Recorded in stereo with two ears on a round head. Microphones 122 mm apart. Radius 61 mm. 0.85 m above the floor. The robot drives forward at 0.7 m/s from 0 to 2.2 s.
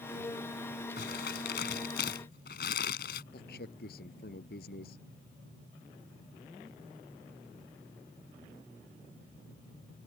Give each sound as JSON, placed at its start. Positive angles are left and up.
{"t": 1.0, "sound": "crumpling", "side_deg": 85}
{"t": 3.3, "sound": "a man speaking", "side_deg": 80}